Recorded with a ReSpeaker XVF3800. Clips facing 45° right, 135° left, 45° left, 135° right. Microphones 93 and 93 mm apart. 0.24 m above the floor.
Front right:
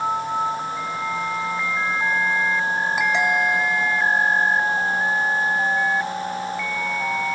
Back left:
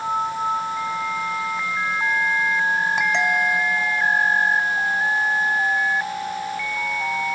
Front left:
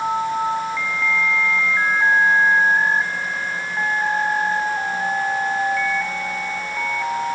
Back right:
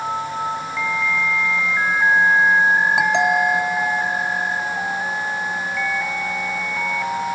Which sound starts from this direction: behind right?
A doorbell, at 3.0 s.